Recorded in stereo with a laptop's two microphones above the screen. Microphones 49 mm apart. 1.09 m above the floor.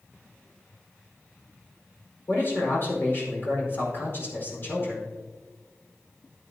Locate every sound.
2.3 s a man speaking: 50° left (ahead or behind), 4.5 m